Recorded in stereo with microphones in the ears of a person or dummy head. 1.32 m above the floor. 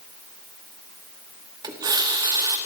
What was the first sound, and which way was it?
A running tap, 20° right (ahead or behind).